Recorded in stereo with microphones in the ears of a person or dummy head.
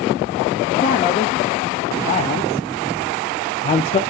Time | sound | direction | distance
0.7 | a man speaking | 35° left (ahead or behind) | 2 m